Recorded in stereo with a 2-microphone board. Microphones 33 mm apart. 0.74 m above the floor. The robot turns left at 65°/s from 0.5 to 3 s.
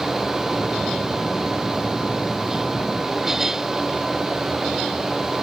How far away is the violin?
No violin in this recording.